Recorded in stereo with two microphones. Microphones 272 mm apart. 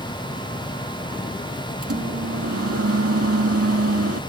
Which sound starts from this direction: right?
A microwave, at 1.8 s.